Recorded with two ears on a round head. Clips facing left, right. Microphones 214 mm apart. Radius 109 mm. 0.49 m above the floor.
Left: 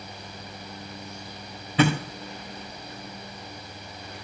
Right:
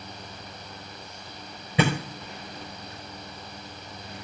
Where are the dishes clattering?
No dishes clattering in this recording.